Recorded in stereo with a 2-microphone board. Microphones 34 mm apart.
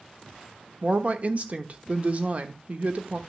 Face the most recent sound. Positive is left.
turn(degrees=-45)  # may be behind; listen again after turning